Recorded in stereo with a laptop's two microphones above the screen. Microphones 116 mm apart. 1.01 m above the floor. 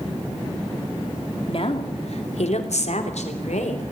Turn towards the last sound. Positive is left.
turn(degrees=85)